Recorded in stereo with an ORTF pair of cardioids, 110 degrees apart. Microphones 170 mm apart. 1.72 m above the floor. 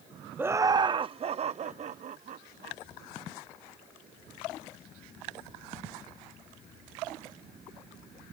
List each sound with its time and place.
0.4 s laughter: 10° right; by 2.8 s 50° right